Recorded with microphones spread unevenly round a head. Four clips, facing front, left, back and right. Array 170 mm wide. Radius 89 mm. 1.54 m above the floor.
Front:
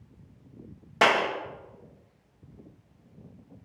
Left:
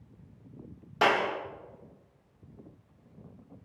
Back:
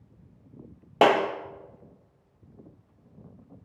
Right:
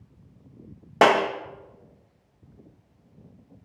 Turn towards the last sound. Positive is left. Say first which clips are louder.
# right 7 dB, back 3 dB
turn(degrees=-125)